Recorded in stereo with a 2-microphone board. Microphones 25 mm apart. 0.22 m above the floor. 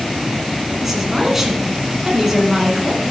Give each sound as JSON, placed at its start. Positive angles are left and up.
{"t": 0.8, "sound": "a woman speaking", "side_deg": -10, "distance_m": 2.0}